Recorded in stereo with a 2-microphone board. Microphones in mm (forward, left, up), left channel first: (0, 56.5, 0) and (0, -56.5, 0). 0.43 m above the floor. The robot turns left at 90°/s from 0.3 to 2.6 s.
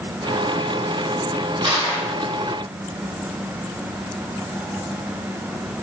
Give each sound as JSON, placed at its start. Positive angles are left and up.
{"t": 1.6, "sound": "crushing", "azimuth_deg": -90, "distance_m": 2.0}